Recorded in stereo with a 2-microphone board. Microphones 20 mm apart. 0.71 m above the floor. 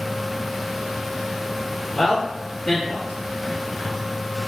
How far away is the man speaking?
About 1.0 m.